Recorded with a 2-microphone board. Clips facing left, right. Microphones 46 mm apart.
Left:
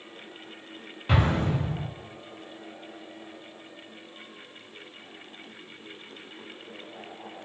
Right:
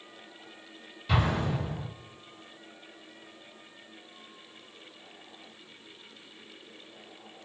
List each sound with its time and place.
1.1 s an explosion: 45° left (ahead or behind), 1.0 m